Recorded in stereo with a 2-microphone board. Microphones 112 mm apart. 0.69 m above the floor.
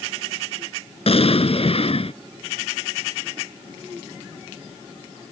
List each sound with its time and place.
1.1 s an explosion: 60° left (ahead or behind)